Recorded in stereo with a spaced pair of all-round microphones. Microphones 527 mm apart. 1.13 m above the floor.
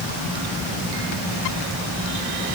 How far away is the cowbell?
I don't hear a cowbell.